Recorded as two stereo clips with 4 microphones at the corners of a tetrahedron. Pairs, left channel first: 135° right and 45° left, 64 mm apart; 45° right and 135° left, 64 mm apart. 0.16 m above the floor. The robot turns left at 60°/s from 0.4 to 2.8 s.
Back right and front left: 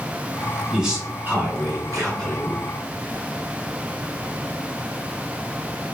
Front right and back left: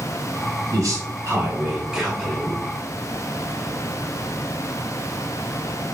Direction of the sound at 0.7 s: 130° left.